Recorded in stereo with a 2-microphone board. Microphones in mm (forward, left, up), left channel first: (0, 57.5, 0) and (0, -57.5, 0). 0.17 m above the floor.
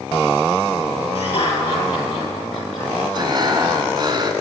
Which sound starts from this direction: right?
Breathing, at 3.1 s.